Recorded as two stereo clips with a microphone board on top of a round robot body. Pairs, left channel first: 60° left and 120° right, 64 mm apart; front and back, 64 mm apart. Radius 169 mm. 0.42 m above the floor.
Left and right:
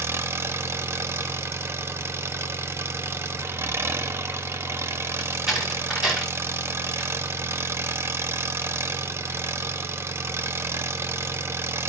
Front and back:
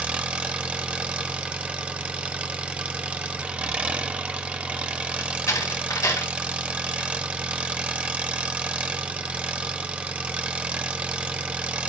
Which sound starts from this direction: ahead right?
A door slam, at 5.2 s.